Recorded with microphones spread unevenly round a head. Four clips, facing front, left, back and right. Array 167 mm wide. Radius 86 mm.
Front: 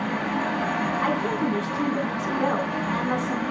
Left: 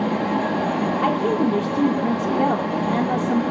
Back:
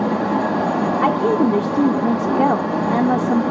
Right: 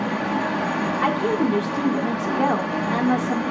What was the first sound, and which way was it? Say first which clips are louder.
A fan: left 2 dB, back 7 dB; 165° left.